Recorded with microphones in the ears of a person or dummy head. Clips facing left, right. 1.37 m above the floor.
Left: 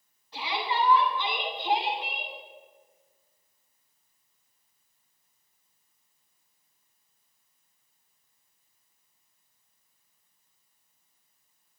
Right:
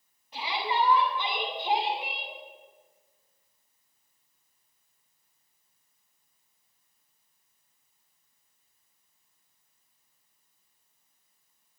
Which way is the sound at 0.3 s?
10° right (ahead or behind).